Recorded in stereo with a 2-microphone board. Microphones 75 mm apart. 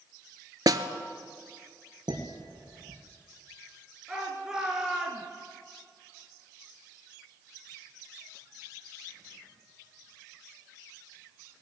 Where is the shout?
10° right (ahead or behind), 2.5 m.